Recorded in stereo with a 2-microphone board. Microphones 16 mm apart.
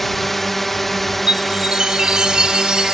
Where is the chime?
80° right.